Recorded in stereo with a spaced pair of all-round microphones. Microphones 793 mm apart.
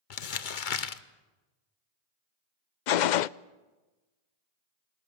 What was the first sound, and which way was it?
Crumpling, 70° left (ahead or behind).